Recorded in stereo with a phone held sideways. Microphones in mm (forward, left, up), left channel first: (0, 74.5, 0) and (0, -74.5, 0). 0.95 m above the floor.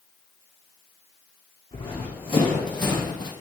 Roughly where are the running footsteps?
Left.